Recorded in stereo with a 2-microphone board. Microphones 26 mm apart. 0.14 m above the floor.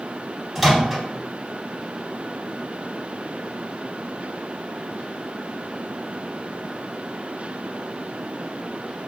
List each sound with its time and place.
0.6 s a microwave: centre (ahead or behind), 1.4 m